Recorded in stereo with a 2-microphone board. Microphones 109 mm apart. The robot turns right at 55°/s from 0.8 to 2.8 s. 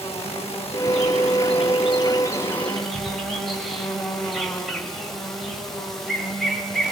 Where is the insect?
65° left, 7 m; by 6.9 s 175° left, 7 m.